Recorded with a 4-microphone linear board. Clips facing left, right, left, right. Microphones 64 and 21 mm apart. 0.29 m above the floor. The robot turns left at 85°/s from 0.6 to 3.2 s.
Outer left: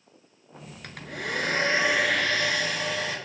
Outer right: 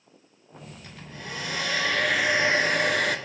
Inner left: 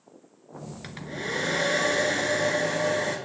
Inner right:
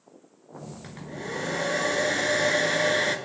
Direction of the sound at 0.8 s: 110° left.